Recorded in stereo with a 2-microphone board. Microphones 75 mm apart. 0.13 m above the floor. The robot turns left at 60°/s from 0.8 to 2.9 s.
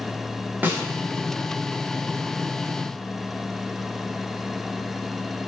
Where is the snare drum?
25° right (ahead or behind), 5.5 m; by 0.8 s 30° right (ahead or behind), 5.5 m.